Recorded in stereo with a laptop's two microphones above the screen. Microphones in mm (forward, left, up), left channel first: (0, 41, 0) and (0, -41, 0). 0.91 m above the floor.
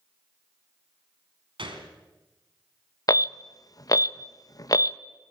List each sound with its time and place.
1.6 s a gunshot: 85° right, 3.5 m
3.1 s an alarm: 45° left (ahead or behind), 0.7 m